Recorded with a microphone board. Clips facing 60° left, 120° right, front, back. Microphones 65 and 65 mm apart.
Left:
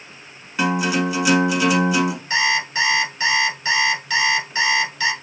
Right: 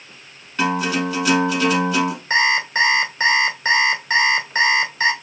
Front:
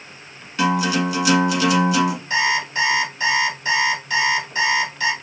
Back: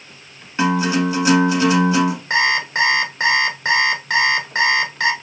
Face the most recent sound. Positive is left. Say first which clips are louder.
# right 5 dB, back 2 dB
turn(degrees=-170)